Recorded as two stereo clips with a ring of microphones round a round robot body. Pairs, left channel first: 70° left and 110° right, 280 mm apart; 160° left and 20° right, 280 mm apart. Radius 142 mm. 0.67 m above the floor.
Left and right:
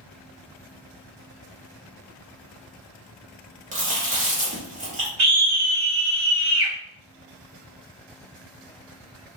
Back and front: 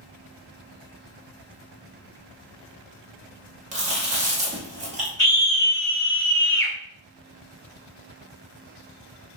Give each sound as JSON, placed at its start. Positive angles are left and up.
{"t": 3.7, "sound": "chewing", "azimuth_deg": -70, "distance_m": 1.1}
{"t": 5.2, "sound": "a scream", "azimuth_deg": -125, "distance_m": 1.9}